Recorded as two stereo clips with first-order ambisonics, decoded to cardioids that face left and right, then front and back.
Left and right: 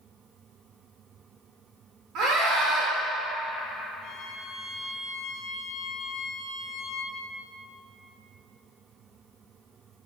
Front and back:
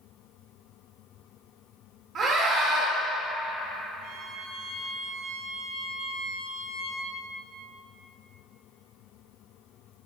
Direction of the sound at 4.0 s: 140° left.